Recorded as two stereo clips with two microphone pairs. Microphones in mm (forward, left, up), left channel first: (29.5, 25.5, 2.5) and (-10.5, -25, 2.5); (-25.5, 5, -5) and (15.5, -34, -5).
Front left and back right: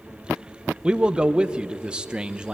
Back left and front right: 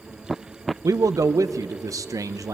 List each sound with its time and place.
0.8 s a man speaking: 55° right, 0.7 m